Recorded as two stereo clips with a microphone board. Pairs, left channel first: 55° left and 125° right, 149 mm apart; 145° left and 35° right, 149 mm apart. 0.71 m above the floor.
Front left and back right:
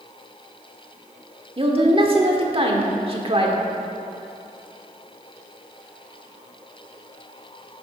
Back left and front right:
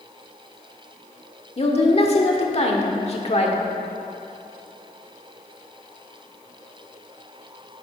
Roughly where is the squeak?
No squeak in this recording.